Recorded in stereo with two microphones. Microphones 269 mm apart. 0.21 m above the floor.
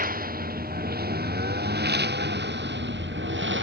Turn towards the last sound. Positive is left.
turn(degrees=-45)  # may be behind; listen again after turning